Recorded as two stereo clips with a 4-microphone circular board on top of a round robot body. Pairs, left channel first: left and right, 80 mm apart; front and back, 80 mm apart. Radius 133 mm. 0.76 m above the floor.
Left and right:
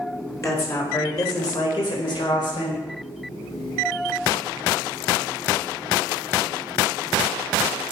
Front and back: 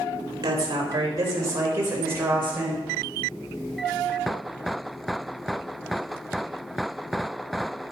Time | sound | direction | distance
0.4 | a woman speaking | 140° left | 4.5 m